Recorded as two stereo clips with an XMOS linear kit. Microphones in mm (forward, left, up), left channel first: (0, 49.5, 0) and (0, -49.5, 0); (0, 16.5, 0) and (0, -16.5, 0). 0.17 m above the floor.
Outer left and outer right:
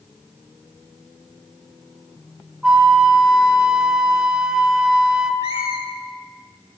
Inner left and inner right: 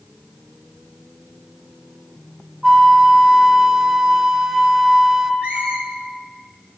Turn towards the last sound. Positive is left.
turn(degrees=-45)  # may be behind; listen again after turning